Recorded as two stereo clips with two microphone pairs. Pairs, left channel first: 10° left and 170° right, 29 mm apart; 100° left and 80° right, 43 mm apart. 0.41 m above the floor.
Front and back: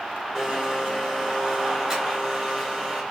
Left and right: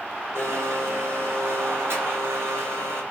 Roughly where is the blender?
Right.